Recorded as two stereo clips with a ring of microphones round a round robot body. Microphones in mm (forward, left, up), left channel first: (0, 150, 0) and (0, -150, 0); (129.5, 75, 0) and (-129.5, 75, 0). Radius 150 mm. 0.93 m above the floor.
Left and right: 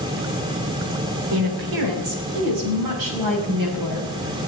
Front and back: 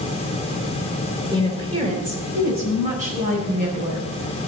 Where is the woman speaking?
105° right, 3.5 m; by 4.5 s 115° right, 8 m.